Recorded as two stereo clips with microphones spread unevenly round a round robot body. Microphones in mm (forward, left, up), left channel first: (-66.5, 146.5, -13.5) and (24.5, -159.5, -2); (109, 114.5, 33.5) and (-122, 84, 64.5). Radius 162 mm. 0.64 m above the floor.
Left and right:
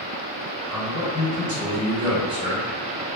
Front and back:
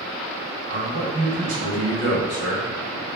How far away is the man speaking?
About 1.7 m.